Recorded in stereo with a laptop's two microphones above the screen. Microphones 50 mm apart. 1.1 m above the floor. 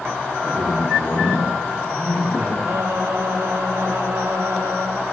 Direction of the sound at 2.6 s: 70° right (ahead or behind).